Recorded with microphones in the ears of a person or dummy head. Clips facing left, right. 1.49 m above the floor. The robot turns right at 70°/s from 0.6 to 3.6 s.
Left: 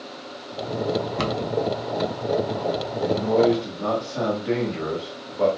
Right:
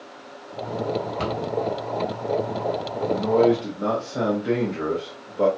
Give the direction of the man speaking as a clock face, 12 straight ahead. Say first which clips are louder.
Right 1 dB; 7 o'clock.